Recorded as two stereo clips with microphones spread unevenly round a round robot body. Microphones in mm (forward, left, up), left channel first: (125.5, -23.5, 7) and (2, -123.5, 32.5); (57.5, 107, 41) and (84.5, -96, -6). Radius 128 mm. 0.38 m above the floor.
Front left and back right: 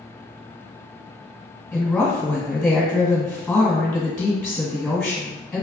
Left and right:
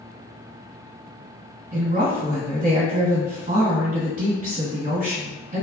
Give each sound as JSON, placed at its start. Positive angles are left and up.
{"t": 1.7, "sound": "a woman speaking", "azimuth_deg": -40, "distance_m": 1.9}